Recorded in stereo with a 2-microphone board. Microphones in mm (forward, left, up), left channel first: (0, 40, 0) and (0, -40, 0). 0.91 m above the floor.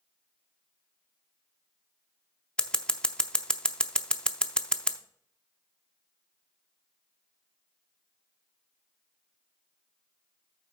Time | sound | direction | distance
2.6 | scissors | 10° left (ahead or behind) | 0.6 m